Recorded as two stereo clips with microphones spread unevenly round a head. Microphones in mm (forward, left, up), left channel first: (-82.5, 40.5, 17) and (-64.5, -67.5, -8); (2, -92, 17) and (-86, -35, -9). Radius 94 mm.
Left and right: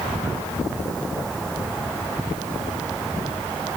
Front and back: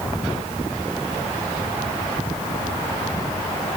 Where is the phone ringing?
I don't hear a phone ringing.